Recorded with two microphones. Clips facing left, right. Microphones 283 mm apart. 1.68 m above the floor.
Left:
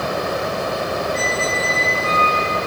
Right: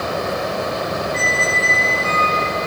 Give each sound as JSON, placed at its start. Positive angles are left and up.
{"t": 1.1, "sound": "a squeak", "side_deg": -30, "distance_m": 5.5}